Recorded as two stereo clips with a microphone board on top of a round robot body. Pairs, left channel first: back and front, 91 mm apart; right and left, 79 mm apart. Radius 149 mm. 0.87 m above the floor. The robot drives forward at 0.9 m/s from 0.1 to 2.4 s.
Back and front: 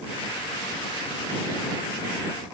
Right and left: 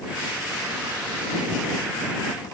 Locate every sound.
Only background noise.